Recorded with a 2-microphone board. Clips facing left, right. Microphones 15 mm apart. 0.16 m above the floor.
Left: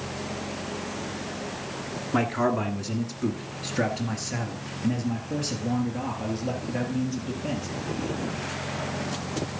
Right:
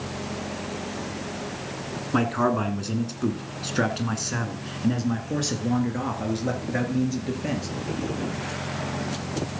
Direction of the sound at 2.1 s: 15° right (ahead or behind).